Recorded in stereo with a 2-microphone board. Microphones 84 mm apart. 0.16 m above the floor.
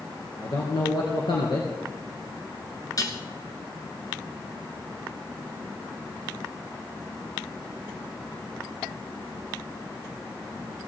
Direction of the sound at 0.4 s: 60° left (ahead or behind).